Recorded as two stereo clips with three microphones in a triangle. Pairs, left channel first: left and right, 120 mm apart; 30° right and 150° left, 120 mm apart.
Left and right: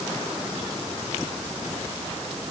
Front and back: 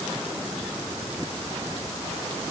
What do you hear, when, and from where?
Only background noise.